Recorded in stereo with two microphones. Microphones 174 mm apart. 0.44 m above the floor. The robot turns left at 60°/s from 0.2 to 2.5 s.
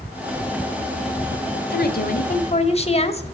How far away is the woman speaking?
About 1.6 m.